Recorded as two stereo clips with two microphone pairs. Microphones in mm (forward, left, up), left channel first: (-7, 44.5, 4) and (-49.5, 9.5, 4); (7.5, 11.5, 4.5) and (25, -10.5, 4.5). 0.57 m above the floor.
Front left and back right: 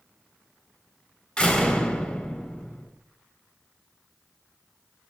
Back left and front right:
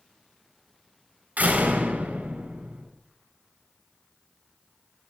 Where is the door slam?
35° right, 3.5 m.